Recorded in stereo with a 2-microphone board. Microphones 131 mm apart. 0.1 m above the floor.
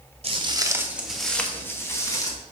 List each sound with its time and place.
0.2 s footsteps: 50° right (ahead or behind), 1.2 m; by 2.4 s 30° left (ahead or behind), 2.5 m